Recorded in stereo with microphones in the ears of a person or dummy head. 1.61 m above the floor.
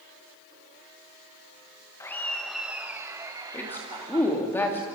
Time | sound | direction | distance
2.0 | laughter | 15° left (ahead or behind) | 1.5 m
3.5 | a woman speaking | 10° left (ahead or behind) | 3 m